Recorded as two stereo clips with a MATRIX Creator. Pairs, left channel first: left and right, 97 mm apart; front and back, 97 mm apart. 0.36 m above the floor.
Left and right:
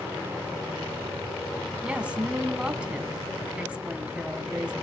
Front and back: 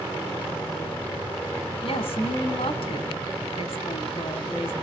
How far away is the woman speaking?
About 2.5 m.